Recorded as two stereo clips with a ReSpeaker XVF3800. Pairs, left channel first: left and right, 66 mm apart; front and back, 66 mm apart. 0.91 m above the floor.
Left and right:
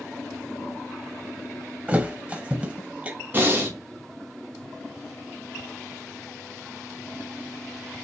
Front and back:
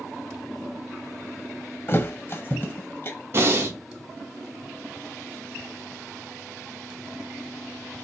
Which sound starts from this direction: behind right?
Breathing, at 3.3 s.